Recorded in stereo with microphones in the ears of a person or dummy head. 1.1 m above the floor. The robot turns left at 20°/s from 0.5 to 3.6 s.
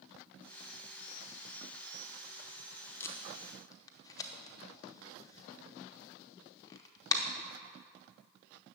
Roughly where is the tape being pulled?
Centre.